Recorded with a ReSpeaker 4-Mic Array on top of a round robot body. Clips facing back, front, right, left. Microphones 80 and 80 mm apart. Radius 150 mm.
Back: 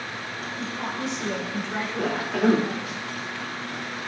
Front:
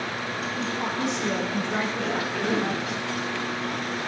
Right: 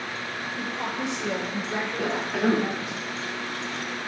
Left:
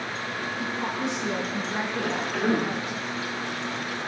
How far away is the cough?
About 1.1 m.